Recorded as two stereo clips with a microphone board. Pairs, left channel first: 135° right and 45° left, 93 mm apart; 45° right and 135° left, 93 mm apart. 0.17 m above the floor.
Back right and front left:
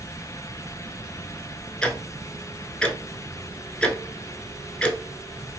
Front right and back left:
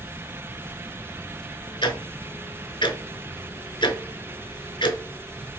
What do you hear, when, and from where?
1.8 s ticking: 60° right, 0.6 m